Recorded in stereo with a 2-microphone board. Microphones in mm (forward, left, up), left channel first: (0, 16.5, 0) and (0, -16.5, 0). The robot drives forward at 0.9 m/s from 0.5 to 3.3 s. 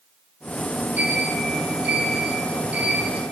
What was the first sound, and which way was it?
A sliding door, 55° right (ahead or behind).